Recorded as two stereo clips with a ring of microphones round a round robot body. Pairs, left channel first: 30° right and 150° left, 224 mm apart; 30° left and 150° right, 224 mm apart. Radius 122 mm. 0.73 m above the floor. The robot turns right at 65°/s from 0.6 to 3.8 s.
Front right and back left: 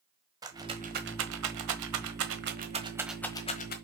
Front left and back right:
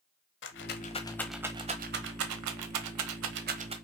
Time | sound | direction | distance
0.4 | a rattle | 75° left | 1.1 m